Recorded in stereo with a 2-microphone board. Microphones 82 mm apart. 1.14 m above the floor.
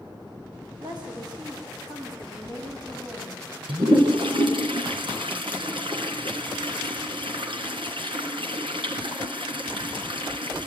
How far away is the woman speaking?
About 6.5 m.